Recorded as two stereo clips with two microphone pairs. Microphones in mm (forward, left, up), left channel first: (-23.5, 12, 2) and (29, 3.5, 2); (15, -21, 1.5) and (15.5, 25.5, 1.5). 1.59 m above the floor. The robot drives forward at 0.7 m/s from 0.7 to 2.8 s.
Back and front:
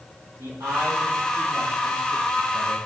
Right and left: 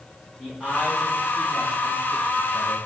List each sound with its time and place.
0.4 s a man speaking: straight ahead, 3 m; by 2.9 s 5° right, 1.4 m